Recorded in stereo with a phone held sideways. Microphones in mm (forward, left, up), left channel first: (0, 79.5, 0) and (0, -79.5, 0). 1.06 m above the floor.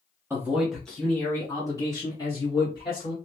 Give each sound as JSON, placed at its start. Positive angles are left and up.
{"t": 0.3, "sound": "a man speaking", "side_deg": -15, "distance_m": 0.7}